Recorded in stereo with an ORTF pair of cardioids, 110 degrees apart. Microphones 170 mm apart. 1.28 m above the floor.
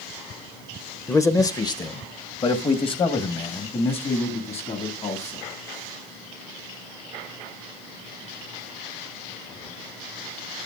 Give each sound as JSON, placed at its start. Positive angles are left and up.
{"t": 1.1, "sound": "a man speaking", "azimuth_deg": 15, "distance_m": 1.0}